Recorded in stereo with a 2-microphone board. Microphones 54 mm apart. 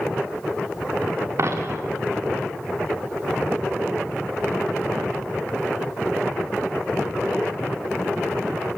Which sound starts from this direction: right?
A dropped coin, at 1.4 s.